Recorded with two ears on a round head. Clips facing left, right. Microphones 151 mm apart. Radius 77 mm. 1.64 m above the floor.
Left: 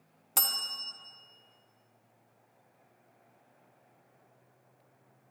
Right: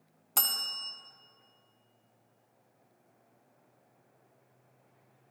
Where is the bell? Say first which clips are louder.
Even; 5° left (ahead or behind), 0.9 m.